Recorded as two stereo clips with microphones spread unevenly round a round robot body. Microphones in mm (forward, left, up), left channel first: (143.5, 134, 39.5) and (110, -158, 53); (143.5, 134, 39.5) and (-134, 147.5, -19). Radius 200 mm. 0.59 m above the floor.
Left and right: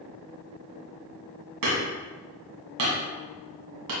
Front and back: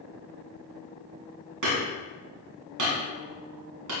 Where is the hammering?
140° right, 2.5 m.